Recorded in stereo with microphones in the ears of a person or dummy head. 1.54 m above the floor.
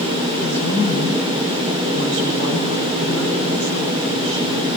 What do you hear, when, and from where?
0.4 s a woman speaking: 75° right (ahead or behind), 8 m